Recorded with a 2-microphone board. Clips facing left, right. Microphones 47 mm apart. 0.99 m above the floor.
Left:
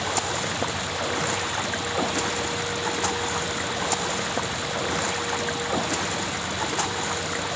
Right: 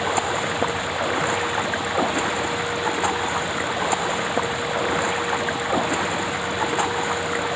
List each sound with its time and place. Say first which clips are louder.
0.0 s running water: right 4 dB; 15° right (ahead or behind)